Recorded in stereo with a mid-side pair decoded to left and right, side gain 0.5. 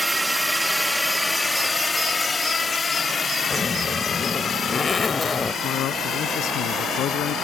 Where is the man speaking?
65° left.